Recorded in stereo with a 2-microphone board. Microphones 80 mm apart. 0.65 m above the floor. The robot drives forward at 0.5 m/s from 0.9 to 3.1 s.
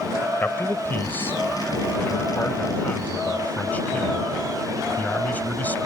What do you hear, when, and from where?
0.4 s a man speaking: 25° left (ahead or behind); by 5.8 s 20° left (ahead or behind)